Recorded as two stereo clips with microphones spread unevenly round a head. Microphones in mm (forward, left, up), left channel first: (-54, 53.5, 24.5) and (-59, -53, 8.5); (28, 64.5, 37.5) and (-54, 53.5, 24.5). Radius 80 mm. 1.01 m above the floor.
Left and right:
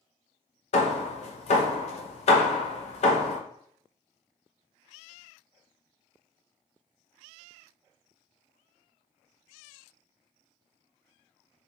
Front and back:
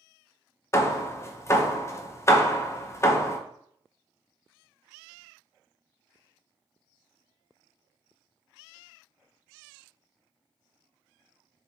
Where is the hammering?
65° left, 0.8 m.